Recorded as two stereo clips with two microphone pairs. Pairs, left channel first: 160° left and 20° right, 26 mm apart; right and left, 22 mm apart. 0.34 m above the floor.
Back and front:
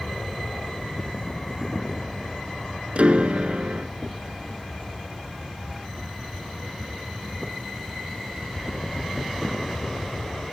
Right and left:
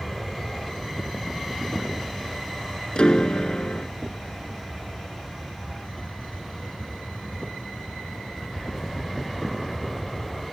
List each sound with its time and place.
0.0 s an aircraft: 165° right
3.0 s a piano: 50° right